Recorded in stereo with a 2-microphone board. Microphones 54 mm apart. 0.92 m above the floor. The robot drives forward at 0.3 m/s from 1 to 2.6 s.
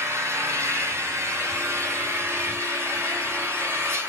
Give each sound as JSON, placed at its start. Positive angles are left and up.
{"t": 0.0, "sound": "an engine running", "side_deg": -55, "distance_m": 2.5}